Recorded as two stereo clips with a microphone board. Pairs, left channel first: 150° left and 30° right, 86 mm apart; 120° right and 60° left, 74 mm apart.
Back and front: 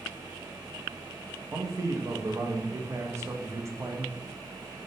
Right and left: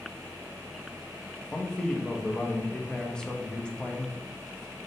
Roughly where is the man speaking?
Ahead right.